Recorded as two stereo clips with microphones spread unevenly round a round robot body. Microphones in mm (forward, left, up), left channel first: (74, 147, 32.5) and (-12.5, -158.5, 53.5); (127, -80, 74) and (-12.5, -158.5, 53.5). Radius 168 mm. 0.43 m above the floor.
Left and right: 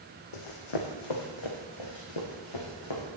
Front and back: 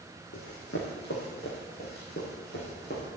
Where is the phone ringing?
I don't hear a phone ringing.